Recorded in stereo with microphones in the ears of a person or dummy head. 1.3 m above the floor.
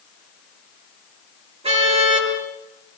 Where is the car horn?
30° right (ahead or behind), 8.5 m.